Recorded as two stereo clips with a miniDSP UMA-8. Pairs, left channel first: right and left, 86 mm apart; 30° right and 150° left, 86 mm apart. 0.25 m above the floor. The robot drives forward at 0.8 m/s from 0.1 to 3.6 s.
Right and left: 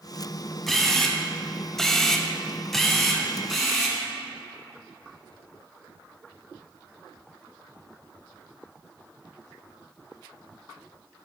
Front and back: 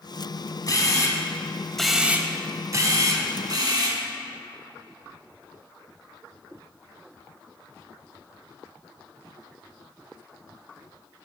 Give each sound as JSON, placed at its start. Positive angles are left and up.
{"t": 0.7, "sound": "a camera shutter", "azimuth_deg": -5, "distance_m": 1.1}